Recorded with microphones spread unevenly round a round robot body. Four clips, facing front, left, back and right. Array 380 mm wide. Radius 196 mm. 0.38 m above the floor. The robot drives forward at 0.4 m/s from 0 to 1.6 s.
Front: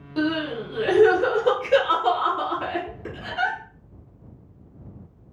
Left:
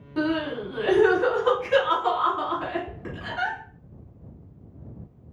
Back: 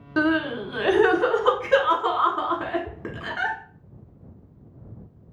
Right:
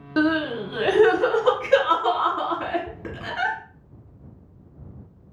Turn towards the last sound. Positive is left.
turn(degrees=-150)